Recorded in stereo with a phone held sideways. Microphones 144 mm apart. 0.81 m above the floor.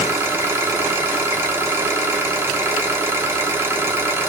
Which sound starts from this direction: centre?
An engine running, at 0.0 s.